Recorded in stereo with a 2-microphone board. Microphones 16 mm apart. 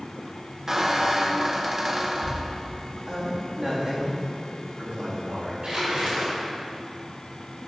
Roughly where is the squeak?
Right.